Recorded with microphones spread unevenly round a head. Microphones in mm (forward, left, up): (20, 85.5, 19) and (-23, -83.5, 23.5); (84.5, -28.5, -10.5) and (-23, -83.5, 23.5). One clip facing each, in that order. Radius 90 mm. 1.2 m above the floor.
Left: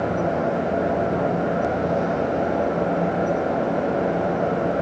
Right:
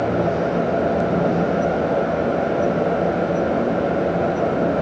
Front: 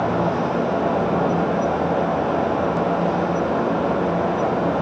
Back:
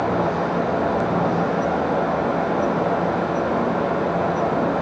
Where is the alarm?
I don't hear an alarm.